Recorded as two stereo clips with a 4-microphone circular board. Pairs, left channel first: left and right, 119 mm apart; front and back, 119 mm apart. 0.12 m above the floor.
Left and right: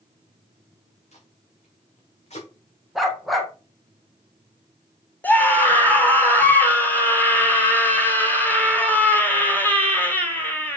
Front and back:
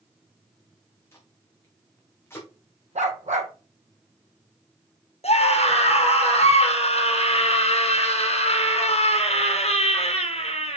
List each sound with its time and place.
1.1 s tape being pulled: 70° left, 3 m
3.0 s a dog barking: straight behind, 1.6 m
5.2 s a scream: 15° left, 3 m